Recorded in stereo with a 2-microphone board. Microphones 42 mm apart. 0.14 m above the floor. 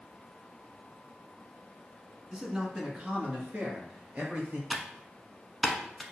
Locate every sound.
2.3 s a man speaking: 15° right (ahead or behind), 1.2 m; by 4.6 s 45° right (ahead or behind), 2.5 m
4.7 s typing on a keyboard: centre (ahead or behind), 0.6 m